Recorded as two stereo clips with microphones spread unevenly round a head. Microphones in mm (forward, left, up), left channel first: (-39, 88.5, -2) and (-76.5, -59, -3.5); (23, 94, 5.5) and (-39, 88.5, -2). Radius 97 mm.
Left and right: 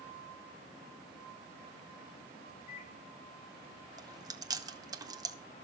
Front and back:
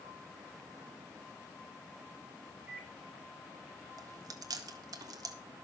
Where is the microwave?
105° left, 7 m.